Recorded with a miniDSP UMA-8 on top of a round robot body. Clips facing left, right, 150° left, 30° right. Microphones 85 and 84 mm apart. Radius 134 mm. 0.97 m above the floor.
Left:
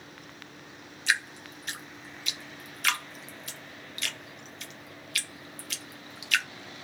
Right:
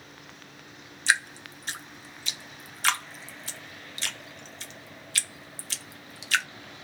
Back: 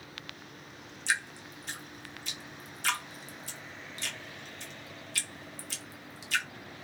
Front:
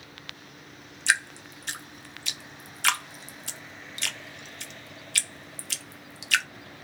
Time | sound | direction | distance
1.1 | dripping | 35° right | 0.5 m